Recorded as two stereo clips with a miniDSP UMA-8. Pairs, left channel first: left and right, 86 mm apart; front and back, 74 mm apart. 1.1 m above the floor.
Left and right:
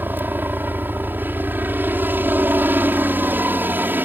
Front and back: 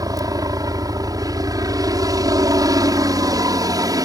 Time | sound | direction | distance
0.0 | a helicopter | 155° right | ?